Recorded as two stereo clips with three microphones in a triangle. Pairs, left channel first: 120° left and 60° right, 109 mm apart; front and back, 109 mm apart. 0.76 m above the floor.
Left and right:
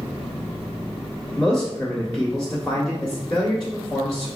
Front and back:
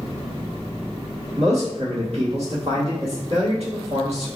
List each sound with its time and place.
1.4 s a man speaking: 175° left, 1.5 m